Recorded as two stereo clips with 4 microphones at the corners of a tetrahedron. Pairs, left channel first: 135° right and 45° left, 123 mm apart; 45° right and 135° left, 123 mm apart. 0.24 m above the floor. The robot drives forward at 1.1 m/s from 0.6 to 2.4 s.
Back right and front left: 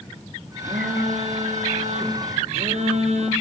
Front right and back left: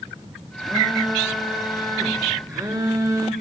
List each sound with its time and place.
0.6 s a phone buzzing: 50° left, 5 m; by 3.3 s 70° left, 4 m